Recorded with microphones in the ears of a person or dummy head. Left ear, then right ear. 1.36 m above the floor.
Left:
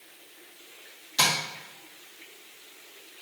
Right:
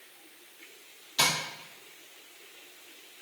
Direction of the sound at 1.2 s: 5° left (ahead or behind).